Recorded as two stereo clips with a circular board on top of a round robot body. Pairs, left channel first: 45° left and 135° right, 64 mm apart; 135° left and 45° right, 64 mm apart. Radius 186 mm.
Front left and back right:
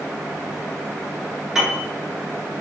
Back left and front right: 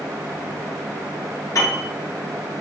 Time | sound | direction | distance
1.6 | a piano | 140° left | 1.5 m